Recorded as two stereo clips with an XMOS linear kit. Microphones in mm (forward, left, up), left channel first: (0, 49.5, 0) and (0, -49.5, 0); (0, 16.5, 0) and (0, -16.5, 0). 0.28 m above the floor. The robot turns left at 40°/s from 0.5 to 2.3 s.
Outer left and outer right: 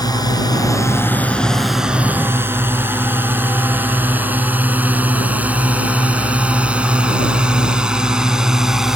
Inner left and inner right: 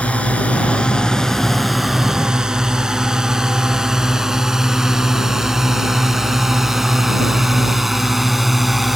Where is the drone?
40° left (ahead or behind); by 9.0 s 5° right (ahead or behind).